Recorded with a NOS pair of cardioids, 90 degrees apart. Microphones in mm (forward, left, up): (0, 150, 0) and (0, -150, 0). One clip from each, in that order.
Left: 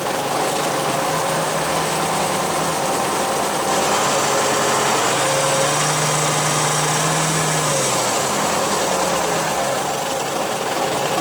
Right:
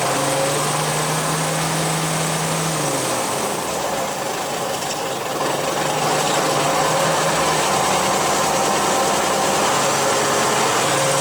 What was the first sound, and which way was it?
Only background noise.